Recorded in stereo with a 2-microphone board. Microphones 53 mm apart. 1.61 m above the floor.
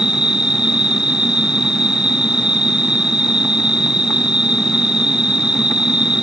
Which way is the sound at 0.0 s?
15° right (ahead or behind).